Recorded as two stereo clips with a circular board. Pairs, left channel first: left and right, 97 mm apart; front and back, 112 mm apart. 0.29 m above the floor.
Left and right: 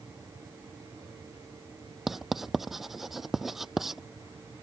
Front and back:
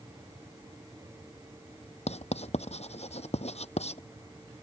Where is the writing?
5° right.